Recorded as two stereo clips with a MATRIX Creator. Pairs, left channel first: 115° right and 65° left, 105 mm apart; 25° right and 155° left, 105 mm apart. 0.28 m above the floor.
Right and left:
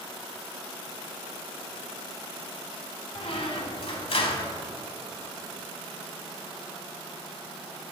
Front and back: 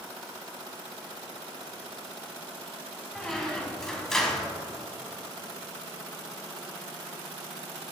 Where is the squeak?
105° right, 0.9 m.